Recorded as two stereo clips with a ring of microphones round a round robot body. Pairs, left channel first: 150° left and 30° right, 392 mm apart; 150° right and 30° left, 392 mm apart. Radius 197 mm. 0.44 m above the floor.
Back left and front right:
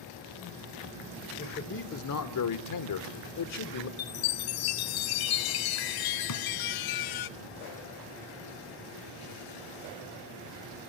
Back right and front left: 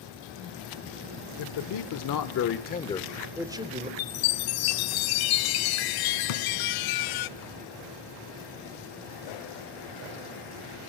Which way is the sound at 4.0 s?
Straight behind.